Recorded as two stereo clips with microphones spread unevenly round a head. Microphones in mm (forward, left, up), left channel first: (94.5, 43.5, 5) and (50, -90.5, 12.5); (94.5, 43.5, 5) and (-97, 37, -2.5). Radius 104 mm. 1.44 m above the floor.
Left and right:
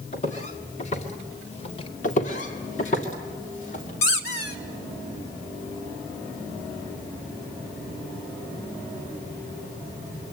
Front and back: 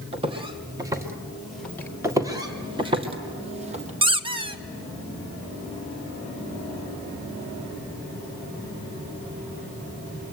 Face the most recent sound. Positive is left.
turn(degrees=115)